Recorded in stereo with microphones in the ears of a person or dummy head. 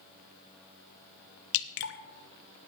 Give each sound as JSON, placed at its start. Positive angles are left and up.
{"t": 1.5, "sound": "dripping", "side_deg": 60, "distance_m": 0.9}